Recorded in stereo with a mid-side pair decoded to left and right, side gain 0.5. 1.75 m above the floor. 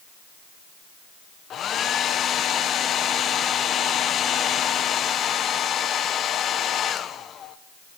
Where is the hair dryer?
55° left, 1.3 m.